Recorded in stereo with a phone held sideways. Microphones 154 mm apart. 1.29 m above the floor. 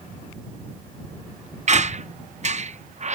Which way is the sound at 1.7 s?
50° right (ahead or behind).